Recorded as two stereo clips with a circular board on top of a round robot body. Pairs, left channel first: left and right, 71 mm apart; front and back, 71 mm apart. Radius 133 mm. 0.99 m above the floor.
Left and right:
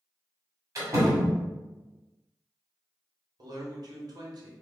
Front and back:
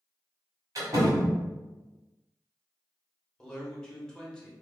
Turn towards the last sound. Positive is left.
turn(degrees=-80)